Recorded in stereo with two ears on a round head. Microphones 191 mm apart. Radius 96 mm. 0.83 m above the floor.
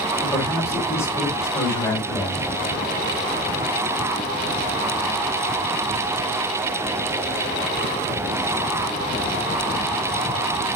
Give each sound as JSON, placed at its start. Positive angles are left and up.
{"t": 0.2, "sound": "a man speaking", "side_deg": 15, "distance_m": 4.0}